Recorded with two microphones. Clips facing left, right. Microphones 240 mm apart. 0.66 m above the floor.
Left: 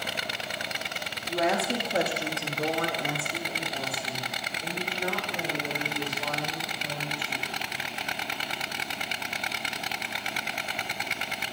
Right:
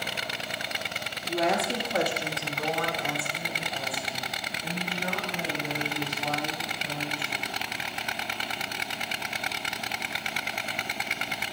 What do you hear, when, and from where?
1.3 s a woman speaking: 5° right (ahead or behind), 0.7 m; by 7.5 s 50° left (ahead or behind), 3.5 m